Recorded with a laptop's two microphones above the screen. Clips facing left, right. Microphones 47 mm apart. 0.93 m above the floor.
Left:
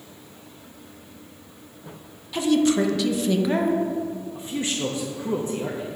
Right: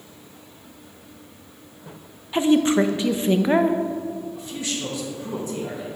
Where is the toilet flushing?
I don't hear a toilet flushing.